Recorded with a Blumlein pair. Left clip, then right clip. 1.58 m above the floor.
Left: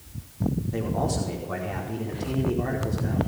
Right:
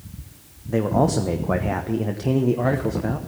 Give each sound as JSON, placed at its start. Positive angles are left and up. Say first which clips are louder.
{"t": 0.7, "sound": "a man speaking", "louder": "right 10 dB", "azimuth_deg": -30, "distance_m": 1.1}